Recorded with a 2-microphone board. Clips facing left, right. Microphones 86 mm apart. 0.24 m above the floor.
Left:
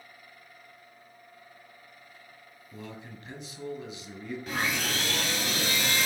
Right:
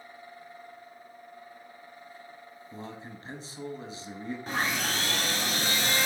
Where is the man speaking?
35° right (ahead or behind), 1.3 m.